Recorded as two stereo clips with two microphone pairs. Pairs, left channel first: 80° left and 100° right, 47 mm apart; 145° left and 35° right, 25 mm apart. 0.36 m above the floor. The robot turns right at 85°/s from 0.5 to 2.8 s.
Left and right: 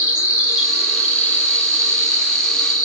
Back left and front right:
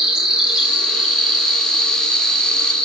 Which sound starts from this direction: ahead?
An insect, at 0.0 s.